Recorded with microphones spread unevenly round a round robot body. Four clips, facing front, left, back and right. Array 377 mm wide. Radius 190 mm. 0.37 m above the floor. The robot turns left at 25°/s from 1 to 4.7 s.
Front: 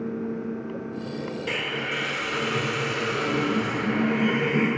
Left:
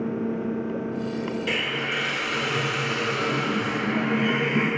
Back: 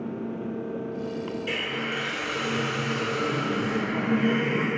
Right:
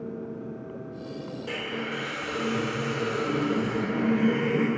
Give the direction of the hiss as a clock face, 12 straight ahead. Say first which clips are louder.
Left 4 dB, front 1 dB; 10 o'clock.